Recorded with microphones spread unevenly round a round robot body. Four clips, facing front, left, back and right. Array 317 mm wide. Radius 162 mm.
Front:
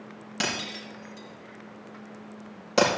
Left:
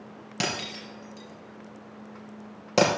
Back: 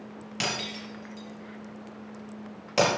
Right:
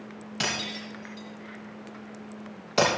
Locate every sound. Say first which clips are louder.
0.4 s breaking glass: left 1 dB, front 1 dB; 75° left, 5.5 m